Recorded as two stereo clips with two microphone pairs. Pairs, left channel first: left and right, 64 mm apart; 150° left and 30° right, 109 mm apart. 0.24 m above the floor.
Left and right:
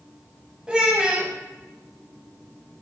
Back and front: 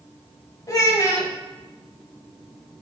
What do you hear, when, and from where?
0.7 s a child speaking: 160° right, 0.8 m